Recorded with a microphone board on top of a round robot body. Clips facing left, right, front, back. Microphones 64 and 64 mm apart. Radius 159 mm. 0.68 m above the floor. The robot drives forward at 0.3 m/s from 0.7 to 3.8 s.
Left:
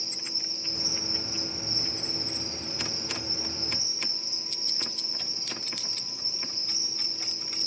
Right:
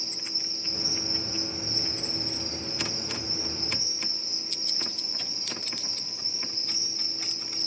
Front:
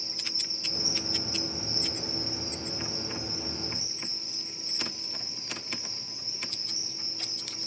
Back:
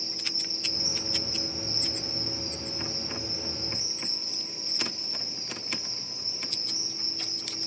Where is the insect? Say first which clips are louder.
Right 1 dB, back 3 dB; 60° right, 2.5 m; by 7.7 s 90° right, 2.5 m.